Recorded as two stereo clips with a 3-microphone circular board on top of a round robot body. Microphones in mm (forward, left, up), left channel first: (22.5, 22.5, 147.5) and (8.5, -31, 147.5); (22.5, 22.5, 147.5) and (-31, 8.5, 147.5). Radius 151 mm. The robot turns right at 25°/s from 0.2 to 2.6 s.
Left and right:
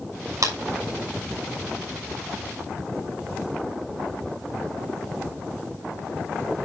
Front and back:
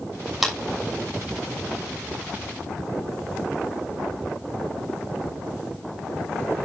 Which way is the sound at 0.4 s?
80° right.